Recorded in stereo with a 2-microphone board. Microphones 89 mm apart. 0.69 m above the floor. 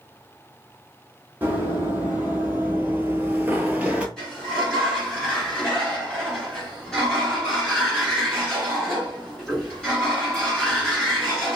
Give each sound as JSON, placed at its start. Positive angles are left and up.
{"t": 1.4, "sound": "running footsteps", "side_deg": -20, "distance_m": 1.3}
{"t": 4.2, "sound": "a sliding door", "side_deg": 10, "distance_m": 1.6}